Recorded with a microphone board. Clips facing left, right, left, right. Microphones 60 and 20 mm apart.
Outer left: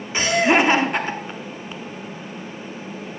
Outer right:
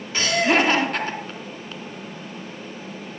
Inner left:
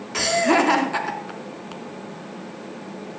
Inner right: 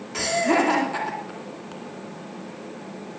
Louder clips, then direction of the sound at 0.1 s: Outer left 2 dB, inner left 3 dB; 20° left (ahead or behind).